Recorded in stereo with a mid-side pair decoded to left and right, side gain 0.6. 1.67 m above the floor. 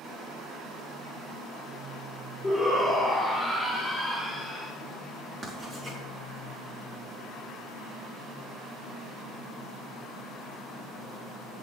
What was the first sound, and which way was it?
A shout, 10° left.